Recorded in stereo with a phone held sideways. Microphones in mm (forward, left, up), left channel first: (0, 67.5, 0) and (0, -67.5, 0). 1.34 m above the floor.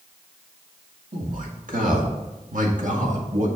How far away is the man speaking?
About 2.5 m.